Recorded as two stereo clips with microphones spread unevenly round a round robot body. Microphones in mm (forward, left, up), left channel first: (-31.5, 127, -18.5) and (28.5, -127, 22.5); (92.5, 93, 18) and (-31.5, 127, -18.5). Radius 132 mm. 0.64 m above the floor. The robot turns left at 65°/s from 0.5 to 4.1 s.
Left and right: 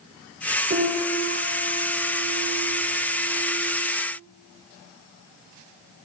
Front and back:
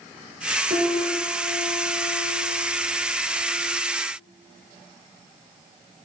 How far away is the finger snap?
I don't hear a finger snap.